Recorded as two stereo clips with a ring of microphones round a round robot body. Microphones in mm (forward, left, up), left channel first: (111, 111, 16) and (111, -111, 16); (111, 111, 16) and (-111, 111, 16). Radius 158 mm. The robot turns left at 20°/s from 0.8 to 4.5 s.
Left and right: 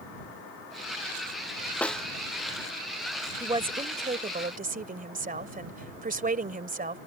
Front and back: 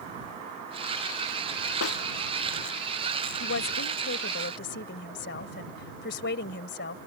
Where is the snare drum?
5° left; by 2.1 s straight ahead.